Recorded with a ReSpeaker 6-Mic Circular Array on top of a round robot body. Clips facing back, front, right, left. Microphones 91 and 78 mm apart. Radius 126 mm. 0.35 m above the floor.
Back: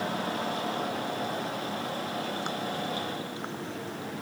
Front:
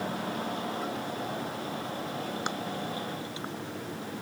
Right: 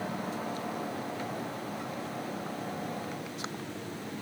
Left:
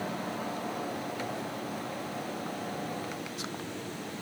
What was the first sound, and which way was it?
Only background noise.